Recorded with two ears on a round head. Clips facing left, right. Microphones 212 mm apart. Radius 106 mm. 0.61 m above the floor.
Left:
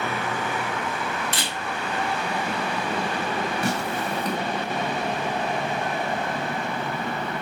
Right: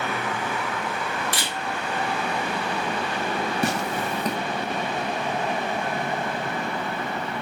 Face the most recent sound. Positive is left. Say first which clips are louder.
# right 1 dB
turn(degrees=-55)  # may be behind; listen again after turning